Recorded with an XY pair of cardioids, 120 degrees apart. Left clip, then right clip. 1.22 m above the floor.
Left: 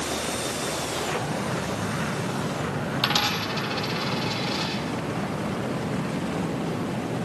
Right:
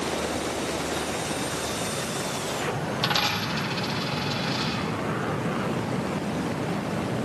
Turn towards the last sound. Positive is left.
turn(degrees=10)